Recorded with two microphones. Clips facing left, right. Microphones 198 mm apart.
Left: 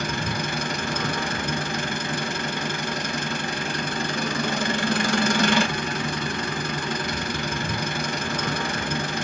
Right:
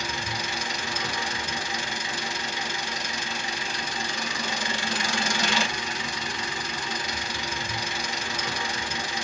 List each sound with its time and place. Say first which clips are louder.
0.0 s an engine running: left 6 dB; 55° left (ahead or behind), 0.9 m